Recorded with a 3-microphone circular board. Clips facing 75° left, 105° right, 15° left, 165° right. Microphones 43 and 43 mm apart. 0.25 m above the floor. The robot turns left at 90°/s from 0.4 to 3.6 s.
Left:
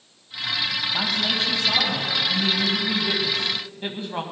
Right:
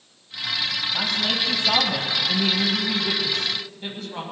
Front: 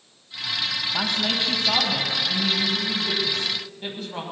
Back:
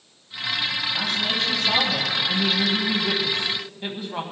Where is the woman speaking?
5° left, 1.5 m; by 4.2 s 125° left, 1.5 m.